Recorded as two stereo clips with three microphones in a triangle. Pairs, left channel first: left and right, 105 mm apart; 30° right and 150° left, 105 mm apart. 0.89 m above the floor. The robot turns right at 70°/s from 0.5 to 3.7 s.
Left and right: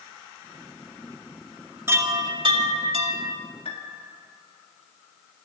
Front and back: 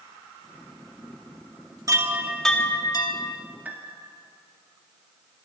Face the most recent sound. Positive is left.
turn(degrees=80)